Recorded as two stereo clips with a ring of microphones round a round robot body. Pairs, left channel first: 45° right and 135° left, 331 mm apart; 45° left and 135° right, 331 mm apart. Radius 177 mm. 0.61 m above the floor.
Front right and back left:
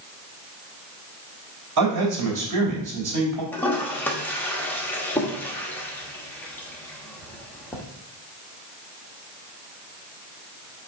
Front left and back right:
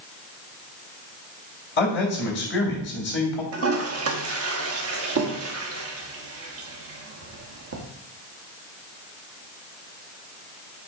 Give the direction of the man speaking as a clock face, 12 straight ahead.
9 o'clock.